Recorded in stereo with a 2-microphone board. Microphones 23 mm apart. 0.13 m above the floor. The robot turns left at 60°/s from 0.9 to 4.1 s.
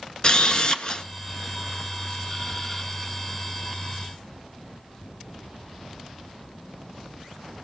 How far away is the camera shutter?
About 1.1 m.